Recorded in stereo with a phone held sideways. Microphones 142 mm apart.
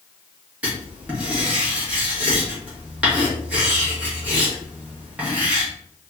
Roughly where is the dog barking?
No dog barking in this recording.